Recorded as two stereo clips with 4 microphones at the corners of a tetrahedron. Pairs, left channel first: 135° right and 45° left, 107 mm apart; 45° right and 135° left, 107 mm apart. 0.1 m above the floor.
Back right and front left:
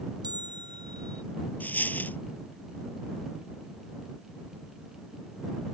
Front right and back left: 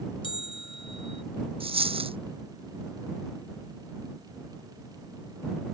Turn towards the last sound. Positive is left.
turn(degrees=150)